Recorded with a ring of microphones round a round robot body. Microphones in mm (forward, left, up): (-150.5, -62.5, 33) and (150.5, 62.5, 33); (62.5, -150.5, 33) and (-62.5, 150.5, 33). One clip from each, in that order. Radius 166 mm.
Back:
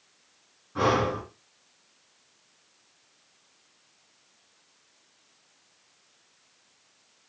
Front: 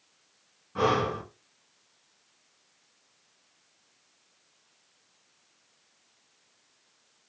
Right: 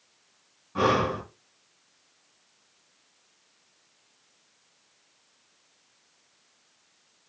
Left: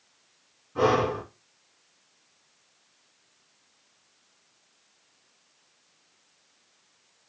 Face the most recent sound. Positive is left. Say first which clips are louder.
# back 1 dB, left 1 dB
turn(degrees=-50)